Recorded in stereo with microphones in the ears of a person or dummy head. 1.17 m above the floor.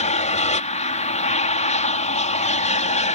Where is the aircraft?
35° left (ahead or behind).